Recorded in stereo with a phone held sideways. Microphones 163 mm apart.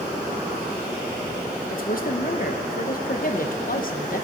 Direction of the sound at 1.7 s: 60° left (ahead or behind).